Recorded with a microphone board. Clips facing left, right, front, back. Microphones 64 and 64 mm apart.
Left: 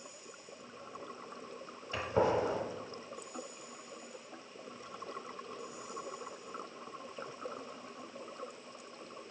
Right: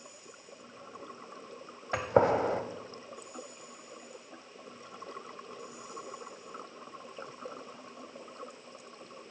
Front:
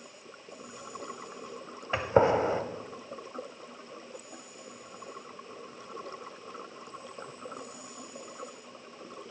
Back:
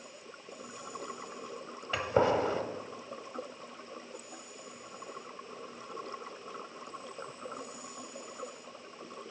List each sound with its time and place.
1.9 s a gunshot: 60° right, 0.7 m